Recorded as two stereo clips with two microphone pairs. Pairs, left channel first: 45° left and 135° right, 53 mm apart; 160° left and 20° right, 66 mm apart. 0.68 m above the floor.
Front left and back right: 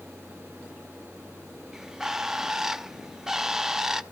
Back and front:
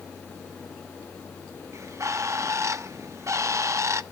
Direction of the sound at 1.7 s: 55° right.